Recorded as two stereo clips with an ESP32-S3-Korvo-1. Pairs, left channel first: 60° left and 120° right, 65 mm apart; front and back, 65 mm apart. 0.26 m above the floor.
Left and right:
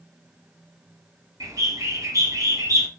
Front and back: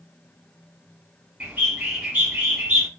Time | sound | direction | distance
1.4 | a bird | 120° right | 1.6 m